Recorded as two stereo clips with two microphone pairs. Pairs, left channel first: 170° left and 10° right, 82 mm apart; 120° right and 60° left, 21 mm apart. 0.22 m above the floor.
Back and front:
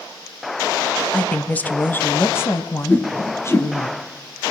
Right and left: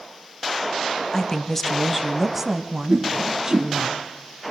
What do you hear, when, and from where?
1.1 s a woman speaking: 130° right, 1.0 m; by 3.9 s 120° left, 1.9 m
2.9 s a whoosh: 100° left, 1.8 m